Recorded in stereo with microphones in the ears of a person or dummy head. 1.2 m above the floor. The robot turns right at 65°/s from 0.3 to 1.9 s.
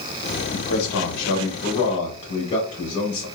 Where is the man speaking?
60° left, 0.9 m; by 3.2 s 150° left, 0.9 m.